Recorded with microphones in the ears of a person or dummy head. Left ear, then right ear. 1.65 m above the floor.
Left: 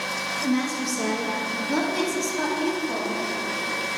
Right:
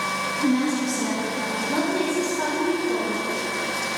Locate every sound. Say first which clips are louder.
0.4 s a woman speaking: right 2 dB; 55° left (ahead or behind), 1.7 m; by 3.2 s 75° left (ahead or behind), 3.5 m